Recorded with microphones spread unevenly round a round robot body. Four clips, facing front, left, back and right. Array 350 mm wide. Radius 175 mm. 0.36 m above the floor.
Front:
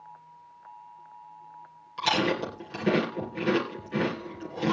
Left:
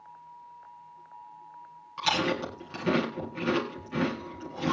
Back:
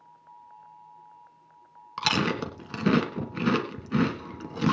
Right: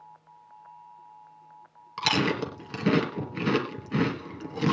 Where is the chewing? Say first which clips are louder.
Right 2 dB, front 1 dB; 155° right, 3 m.